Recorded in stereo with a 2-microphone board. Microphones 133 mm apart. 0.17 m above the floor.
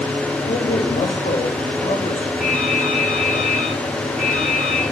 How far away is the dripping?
About 10 m.